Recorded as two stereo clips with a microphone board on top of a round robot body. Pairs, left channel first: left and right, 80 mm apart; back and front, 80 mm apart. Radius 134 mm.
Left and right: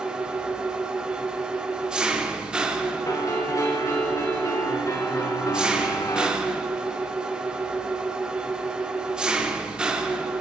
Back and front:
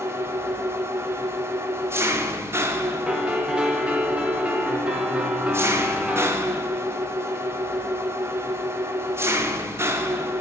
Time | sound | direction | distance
0.0 | an engine running | 20° right | 0.9 m
3.1 | a piano | 70° left | 1.2 m